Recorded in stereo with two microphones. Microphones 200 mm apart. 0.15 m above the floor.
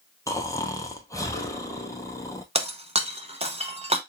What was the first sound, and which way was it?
Snoring, 15° left (ahead or behind).